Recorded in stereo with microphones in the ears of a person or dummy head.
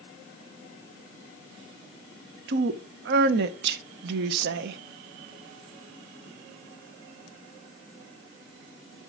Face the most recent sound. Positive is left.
turn(degrees=-75)  # may be behind; listen again after turning